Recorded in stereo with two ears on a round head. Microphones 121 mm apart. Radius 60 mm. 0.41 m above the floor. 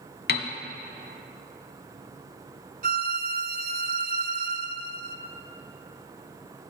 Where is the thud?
I don't hear a thud.